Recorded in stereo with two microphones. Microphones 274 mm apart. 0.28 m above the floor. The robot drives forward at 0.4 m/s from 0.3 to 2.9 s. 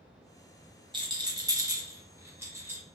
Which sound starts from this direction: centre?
A rattle, at 0.9 s.